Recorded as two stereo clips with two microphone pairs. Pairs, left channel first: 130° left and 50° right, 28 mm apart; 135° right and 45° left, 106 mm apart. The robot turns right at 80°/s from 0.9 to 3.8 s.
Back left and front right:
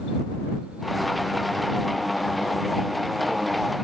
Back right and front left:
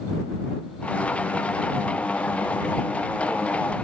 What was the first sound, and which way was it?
Only background noise.